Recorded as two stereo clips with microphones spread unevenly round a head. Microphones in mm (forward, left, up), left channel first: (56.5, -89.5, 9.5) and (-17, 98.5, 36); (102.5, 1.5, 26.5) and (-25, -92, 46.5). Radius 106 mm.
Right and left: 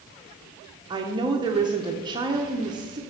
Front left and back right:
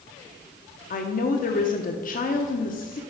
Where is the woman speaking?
40° left, 0.8 m.